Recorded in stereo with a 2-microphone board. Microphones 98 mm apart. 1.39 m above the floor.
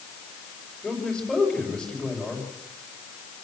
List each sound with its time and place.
0.8 s a man speaking: 5° left (ahead or behind), 6.5 m